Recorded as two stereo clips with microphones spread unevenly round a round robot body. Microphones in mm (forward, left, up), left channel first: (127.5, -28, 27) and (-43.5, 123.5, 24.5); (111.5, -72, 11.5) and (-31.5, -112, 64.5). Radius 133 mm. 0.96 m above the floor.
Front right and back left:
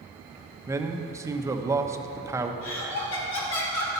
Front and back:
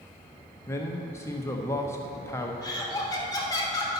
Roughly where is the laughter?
Ahead right.